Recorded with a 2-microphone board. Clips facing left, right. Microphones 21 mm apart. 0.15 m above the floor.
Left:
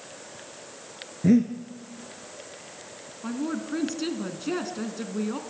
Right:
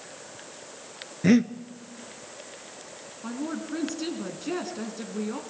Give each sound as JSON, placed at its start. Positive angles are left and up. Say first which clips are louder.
{"t": 1.2, "sound": "breathing", "louder": "even", "side_deg": -55, "distance_m": 1.0}
{"t": 3.2, "sound": "a woman speaking", "louder": "left 2 dB", "side_deg": 10, "distance_m": 1.7}